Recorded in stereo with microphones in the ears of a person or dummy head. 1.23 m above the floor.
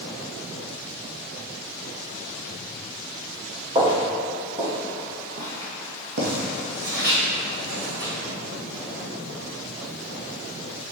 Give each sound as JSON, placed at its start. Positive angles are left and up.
{"t": 3.8, "sound": "footsteps", "side_deg": -25, "distance_m": 2.5}